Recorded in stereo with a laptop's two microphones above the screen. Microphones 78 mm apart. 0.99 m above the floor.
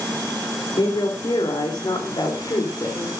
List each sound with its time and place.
0.8 s a woman speaking: 75° left (ahead or behind), 3 m; by 3.1 s 55° left (ahead or behind), 3.5 m